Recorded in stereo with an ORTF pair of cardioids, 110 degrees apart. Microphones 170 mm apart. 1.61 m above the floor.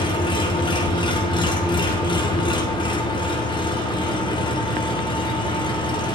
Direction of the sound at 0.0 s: 30° left.